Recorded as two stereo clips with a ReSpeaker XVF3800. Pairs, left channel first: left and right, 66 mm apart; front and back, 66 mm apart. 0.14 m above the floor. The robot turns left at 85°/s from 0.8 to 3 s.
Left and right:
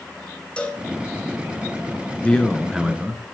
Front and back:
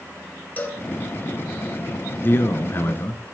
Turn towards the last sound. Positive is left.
turn(degrees=-35)